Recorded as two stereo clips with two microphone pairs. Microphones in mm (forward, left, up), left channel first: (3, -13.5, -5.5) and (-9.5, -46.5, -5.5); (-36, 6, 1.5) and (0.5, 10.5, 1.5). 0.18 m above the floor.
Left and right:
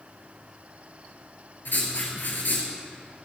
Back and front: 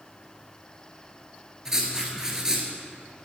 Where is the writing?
85° left, 2 m.